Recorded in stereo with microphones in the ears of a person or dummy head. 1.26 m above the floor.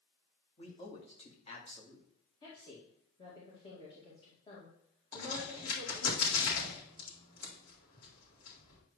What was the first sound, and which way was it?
A man speaking, 35° left (ahead or behind).